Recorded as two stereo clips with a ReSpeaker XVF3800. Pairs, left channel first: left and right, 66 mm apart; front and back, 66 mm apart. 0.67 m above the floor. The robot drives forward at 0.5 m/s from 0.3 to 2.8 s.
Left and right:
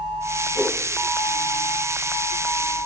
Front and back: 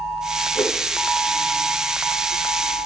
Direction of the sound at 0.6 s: 15° left.